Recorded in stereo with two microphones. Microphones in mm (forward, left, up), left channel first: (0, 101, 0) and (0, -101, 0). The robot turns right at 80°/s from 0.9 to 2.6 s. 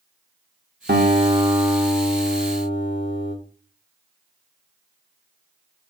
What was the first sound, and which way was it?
A guitar, 60° right.